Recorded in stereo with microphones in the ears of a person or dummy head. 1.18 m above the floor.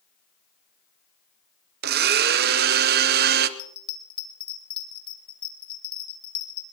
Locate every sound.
1.8 s a blender: 50° right (ahead or behind), 0.8 m
3.6 s a bell: 25° left (ahead or behind), 1.0 m